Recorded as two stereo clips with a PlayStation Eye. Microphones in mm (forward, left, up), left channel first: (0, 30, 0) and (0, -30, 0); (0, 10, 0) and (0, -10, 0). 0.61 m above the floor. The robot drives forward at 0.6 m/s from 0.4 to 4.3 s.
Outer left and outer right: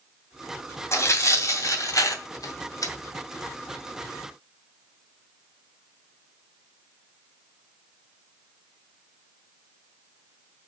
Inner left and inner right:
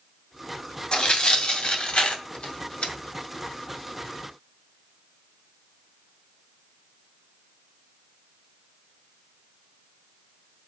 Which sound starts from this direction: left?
Tearing paper, at 0.9 s.